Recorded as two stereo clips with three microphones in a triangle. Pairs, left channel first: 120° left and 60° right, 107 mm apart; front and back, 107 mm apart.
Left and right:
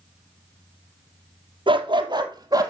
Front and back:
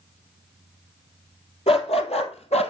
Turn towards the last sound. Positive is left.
turn(degrees=-5)